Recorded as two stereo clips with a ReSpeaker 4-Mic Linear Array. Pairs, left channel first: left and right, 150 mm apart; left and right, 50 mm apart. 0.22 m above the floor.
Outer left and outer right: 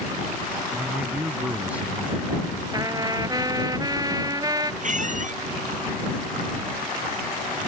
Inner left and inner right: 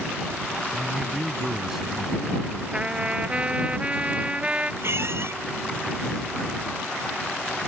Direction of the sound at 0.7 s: 10° right (ahead or behind).